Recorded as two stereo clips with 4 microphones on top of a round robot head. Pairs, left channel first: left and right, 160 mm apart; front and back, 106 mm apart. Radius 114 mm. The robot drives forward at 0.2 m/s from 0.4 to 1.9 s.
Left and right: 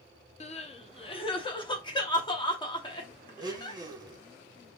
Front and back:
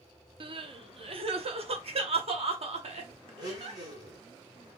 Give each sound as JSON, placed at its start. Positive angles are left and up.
{"t": 0.4, "sound": "crying", "azimuth_deg": 140, "distance_m": 0.6}
{"t": 3.4, "sound": "a blender", "azimuth_deg": -145, "distance_m": 1.1}